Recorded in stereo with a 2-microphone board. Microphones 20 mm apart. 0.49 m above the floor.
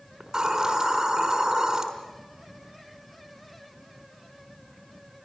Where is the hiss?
30° right (ahead or behind), 4.5 m.